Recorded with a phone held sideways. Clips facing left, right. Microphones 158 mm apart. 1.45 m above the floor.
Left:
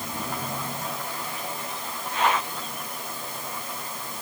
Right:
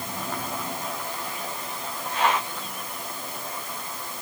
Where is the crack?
I don't hear a crack.